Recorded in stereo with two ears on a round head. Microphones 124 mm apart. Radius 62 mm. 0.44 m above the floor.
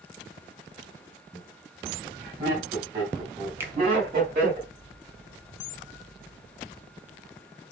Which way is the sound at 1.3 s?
25° right (ahead or behind).